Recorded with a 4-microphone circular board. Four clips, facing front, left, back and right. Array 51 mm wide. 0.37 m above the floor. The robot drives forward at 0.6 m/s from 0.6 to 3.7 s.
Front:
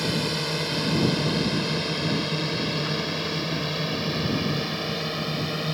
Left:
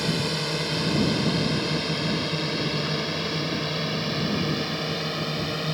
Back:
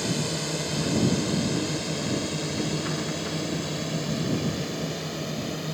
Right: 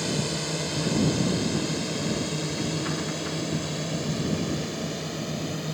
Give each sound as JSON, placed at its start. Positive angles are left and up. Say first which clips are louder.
{"t": 0.0, "sound": "a drone", "louder": "left 2 dB, front 2 dB", "azimuth_deg": 40}